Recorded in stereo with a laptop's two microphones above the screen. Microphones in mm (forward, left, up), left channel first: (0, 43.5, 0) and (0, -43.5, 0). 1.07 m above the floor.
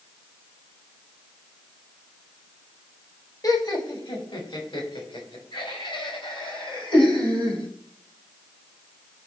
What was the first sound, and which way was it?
Laughter, 45° left (ahead or behind).